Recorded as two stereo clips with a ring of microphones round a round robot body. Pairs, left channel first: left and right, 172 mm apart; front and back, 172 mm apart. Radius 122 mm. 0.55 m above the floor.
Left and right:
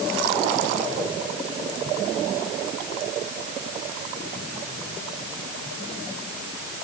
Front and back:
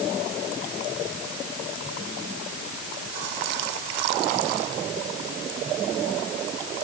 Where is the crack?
No crack in this recording.